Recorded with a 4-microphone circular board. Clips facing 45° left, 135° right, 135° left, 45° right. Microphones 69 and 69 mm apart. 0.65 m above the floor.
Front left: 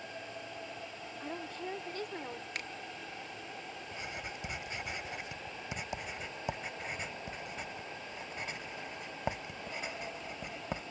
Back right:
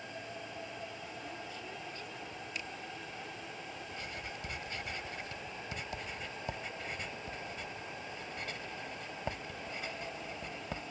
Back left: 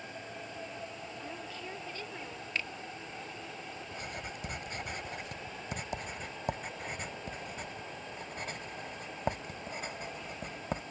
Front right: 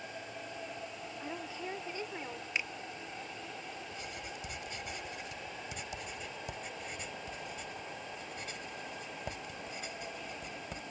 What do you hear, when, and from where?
1.2 s a woman speaking: 20° left; by 2.5 s 25° left
2.5 s a finger snap: 25° left
3.9 s writing: 110° left